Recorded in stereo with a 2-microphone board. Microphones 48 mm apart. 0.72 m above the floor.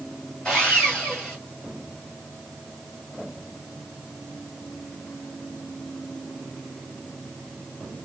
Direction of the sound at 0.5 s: 15° left (ahead or behind).